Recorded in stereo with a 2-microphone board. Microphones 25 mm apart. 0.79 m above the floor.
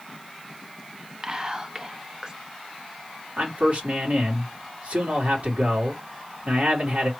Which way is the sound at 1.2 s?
30° right (ahead or behind).